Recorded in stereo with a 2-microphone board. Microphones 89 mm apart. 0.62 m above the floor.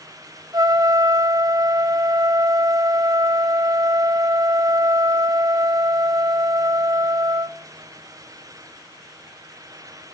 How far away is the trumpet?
About 0.7 m.